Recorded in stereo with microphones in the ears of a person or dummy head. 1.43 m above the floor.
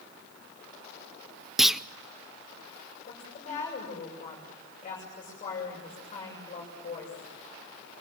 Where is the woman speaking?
35° left (ahead or behind), 7.5 m.